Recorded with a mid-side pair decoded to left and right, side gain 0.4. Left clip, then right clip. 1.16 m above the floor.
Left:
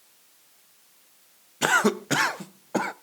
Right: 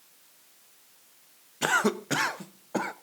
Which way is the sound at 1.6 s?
30° left.